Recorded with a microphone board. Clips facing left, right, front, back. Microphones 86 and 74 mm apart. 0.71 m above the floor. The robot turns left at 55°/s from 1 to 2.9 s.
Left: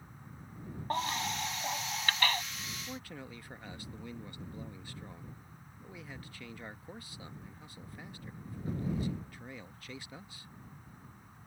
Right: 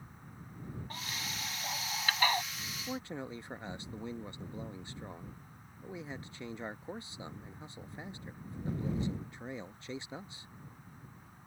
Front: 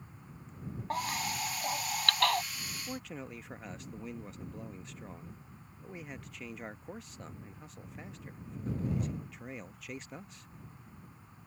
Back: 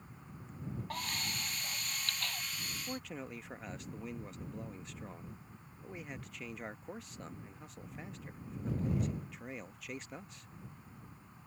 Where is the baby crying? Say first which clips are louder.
Left 13 dB, front 9 dB; 55° left; by 2.4 s 25° right.